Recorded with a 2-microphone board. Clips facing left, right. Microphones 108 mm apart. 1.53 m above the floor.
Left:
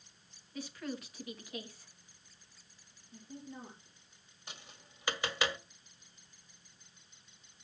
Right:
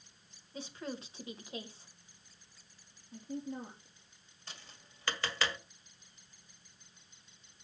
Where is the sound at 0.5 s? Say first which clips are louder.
Left 1 dB; 25° right (ahead or behind), 2 m.